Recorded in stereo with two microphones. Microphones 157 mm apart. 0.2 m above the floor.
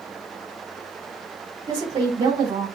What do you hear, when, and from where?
1.7 s a woman speaking: 35° right (ahead or behind), 1.5 m